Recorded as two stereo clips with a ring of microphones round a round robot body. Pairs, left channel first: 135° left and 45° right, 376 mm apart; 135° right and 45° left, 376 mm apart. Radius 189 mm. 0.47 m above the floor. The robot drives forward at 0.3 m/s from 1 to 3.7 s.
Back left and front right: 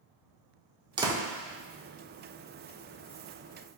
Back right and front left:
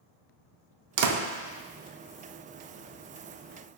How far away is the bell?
No bell in this recording.